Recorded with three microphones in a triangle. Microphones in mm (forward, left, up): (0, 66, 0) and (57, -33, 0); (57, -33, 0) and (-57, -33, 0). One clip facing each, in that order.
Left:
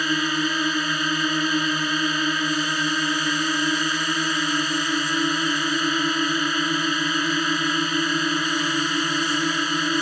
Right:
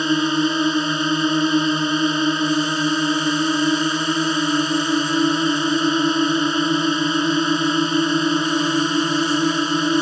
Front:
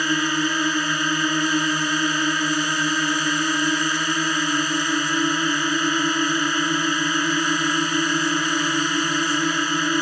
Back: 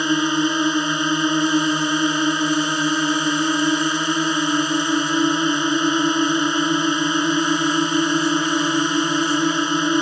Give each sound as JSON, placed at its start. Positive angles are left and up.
{"t": 0.0, "sound": "a drone", "azimuth_deg": -115}